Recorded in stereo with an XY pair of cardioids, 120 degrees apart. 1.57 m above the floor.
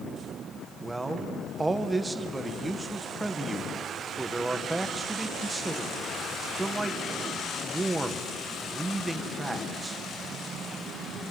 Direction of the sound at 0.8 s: 15° right.